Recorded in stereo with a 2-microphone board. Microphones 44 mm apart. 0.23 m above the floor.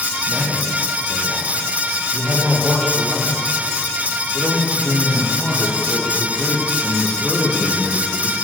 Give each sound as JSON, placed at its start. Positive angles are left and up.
{"t": 0.3, "sound": "a man speaking", "side_deg": 5, "distance_m": 7.5}